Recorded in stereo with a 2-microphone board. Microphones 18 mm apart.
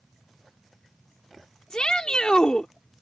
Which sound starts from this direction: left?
A shout, at 1.7 s.